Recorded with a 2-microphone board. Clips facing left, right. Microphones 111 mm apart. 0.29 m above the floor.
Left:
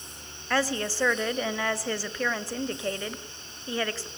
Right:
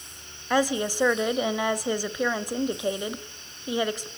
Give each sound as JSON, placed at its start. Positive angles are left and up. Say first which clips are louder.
{"t": 0.5, "sound": "a woman speaking", "louder": "right 4 dB", "side_deg": -15, "distance_m": 1.2}